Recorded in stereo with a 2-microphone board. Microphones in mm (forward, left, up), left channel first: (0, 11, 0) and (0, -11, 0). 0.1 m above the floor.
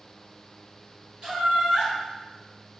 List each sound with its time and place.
1.2 s laughter: 35° right (ahead or behind), 1.5 m